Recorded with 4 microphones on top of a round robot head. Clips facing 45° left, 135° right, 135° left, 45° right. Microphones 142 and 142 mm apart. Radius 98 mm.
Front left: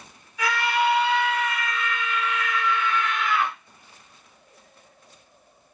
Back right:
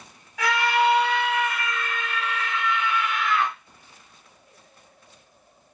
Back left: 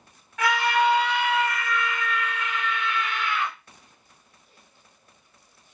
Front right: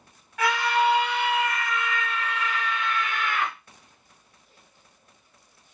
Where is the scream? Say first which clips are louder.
Back right 2 dB, back left 1 dB; 125° right, 1.6 m; by 3.5 s 35° right, 0.9 m.